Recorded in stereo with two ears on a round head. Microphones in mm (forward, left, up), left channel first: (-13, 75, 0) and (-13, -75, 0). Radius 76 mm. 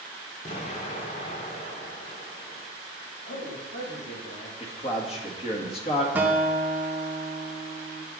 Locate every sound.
0.5 s an explosion: 40° left (ahead or behind), 1.9 m
3.2 s a man speaking: 85° left, 3.5 m
4.6 s a man speaking: 35° left (ahead or behind), 2 m
6.2 s a guitar: 10° right (ahead or behind), 1.8 m